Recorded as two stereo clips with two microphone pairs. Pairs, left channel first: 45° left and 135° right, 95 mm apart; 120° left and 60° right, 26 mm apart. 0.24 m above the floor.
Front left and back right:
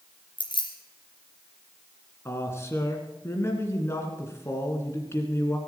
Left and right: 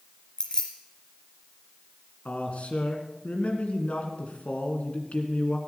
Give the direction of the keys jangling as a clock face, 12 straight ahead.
10 o'clock.